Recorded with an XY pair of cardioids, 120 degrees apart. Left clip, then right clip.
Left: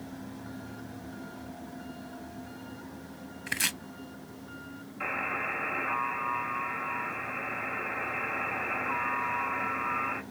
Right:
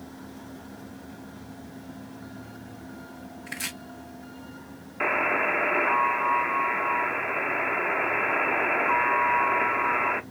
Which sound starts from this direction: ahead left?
Chopping, at 3.5 s.